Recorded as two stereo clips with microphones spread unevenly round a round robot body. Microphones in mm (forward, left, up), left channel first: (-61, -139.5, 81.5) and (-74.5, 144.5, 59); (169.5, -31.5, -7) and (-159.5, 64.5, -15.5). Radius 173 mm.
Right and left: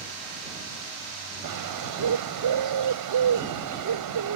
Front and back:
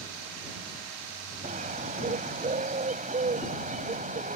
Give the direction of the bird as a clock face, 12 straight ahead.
9 o'clock.